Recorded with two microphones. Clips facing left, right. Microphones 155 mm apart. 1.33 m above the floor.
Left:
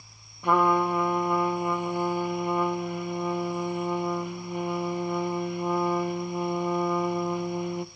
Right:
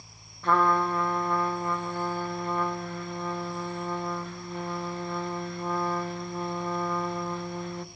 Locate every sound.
0.4 s a trumpet: 15° left (ahead or behind), 1.0 m